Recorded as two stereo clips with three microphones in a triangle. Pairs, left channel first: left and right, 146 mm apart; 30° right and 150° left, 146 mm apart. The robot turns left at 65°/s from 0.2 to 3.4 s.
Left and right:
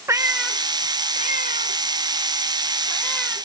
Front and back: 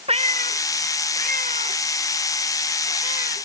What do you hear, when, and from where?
0.1 s a cat meowing: 160° right; by 3.5 s 10° right